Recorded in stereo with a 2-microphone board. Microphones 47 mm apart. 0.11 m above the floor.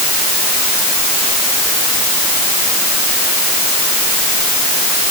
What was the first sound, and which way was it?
Only background noise.